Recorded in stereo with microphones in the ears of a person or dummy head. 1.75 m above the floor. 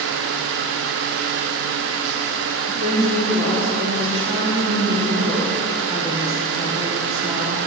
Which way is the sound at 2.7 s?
25° right (ahead or behind).